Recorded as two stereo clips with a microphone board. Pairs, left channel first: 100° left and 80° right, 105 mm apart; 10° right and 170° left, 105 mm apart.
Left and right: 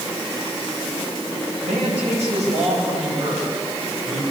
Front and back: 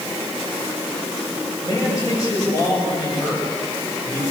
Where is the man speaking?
70° right, 10 m.